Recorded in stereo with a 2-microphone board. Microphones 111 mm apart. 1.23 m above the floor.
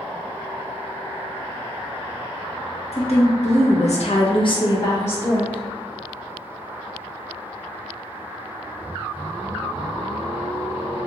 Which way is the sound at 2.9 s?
70° left (ahead or behind).